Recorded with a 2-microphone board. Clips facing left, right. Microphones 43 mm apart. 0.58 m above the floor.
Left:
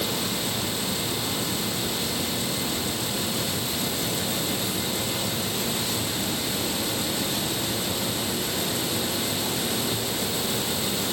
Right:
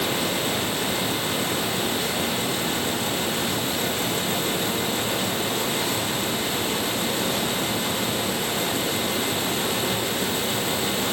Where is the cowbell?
I don't hear a cowbell.